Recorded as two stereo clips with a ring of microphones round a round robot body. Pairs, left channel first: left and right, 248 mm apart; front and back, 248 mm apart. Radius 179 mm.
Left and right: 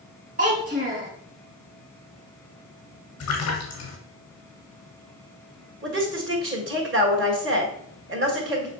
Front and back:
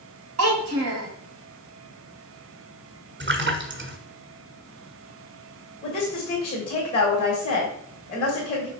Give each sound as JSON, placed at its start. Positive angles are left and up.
{"t": 0.4, "sound": "a child speaking", "azimuth_deg": -155, "distance_m": 1.9}
{"t": 3.2, "sound": "a splash", "azimuth_deg": 135, "distance_m": 1.8}
{"t": 5.8, "sound": "a woman speaking", "azimuth_deg": -70, "distance_m": 2.0}